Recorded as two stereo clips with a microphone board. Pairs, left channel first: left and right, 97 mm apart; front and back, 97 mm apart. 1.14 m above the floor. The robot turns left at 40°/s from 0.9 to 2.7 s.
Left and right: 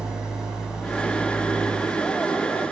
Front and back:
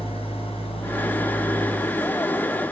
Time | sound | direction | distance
0.0 | an engine running | 5° right | 5.5 m